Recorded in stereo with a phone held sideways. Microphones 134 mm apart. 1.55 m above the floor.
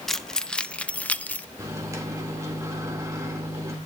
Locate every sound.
0.1 s keys jangling: 5° left (ahead or behind), 0.7 m; by 1.5 s 10° left (ahead or behind), 0.7 m
1.6 s a microwave: 25° right (ahead or behind), 2 m